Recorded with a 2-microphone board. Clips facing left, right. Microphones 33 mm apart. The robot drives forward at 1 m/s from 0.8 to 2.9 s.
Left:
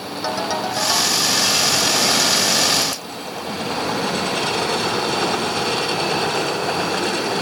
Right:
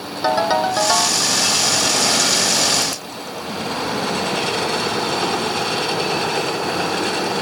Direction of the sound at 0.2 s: 30° right (ahead or behind).